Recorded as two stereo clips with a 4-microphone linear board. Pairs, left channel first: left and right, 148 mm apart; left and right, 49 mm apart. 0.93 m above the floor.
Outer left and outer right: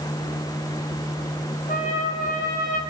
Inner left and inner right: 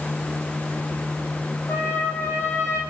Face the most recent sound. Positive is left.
turn(degrees=70)  # may be behind; listen again after turning